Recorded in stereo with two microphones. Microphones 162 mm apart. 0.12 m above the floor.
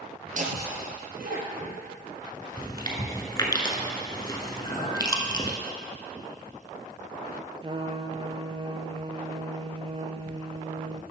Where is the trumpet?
35° right (ahead or behind), 0.5 m.